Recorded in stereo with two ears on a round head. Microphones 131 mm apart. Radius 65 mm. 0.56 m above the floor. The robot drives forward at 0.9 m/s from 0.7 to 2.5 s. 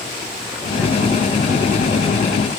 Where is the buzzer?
No buzzer in this recording.